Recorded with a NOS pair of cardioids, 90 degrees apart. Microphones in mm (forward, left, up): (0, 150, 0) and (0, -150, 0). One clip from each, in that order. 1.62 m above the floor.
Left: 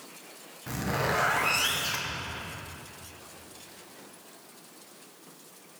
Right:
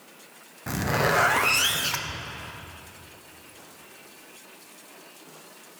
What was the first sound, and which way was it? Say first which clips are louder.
A zipper: right 5 dB; 35° right.